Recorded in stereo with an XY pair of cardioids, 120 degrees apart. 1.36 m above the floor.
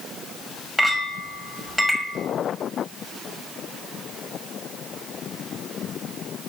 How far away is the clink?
About 1.6 m.